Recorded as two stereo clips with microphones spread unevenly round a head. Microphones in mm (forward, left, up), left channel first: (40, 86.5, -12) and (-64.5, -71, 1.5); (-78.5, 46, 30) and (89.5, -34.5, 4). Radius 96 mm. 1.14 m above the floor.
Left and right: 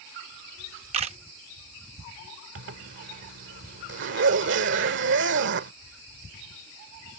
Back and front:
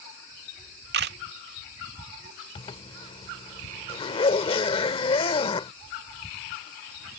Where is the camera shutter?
65° right.